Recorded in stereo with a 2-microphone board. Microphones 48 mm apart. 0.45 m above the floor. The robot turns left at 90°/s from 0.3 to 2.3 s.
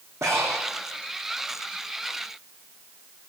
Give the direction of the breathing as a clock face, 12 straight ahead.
3 o'clock.